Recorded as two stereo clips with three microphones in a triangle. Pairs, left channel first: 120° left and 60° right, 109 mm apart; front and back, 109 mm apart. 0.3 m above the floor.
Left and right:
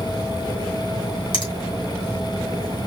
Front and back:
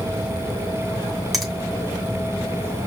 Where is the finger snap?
90° left, 2.5 m.